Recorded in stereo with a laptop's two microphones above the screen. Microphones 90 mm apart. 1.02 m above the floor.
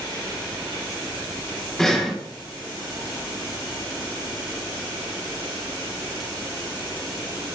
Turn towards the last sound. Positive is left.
turn(degrees=5)  # may be behind; listen again after turning